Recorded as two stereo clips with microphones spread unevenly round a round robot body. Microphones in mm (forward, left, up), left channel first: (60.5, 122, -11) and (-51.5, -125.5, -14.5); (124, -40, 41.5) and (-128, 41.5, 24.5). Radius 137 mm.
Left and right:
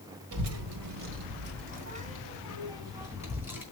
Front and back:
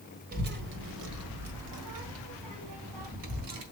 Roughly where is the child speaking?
Behind right.